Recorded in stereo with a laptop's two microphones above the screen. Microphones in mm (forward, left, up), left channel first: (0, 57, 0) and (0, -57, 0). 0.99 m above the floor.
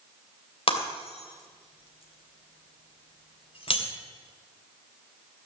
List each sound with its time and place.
0.7 s breaking glass: 55° left (ahead or behind), 3 m